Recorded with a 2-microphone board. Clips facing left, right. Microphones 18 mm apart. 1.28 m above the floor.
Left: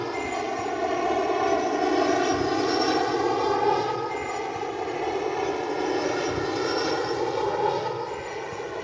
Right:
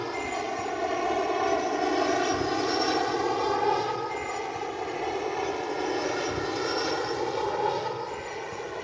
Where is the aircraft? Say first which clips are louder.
Left 2 dB; 5° left (ahead or behind).